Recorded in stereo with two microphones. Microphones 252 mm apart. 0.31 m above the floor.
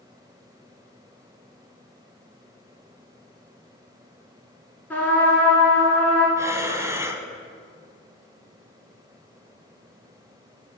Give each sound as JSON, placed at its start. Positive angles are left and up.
{"t": 4.9, "sound": "a trumpet", "side_deg": 5, "distance_m": 1.9}
{"t": 6.4, "sound": "breathing", "side_deg": -10, "distance_m": 0.5}